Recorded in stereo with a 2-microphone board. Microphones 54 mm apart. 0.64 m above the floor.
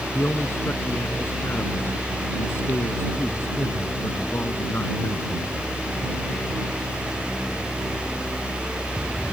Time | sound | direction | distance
0.1 | a man speaking | 50° left (ahead or behind) | ?